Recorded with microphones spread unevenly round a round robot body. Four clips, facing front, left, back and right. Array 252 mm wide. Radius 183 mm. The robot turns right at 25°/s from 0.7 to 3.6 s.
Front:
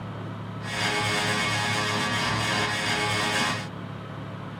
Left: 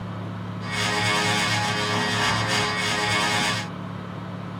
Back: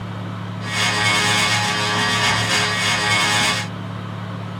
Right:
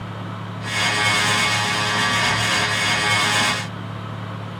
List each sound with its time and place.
Only background noise.